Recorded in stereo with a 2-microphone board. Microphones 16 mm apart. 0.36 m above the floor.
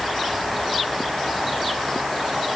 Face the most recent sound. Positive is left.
No sound to turn to.